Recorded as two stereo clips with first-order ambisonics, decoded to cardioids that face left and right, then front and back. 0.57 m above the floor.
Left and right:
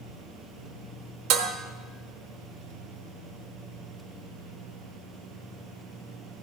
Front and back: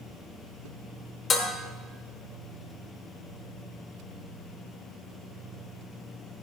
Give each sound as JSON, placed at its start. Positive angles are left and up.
{"t": 1.3, "sound": "dishes clattering", "azimuth_deg": -65, "distance_m": 1.1}